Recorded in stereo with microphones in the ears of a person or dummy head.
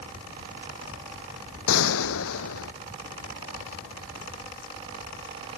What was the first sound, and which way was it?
A gunshot, 80° left.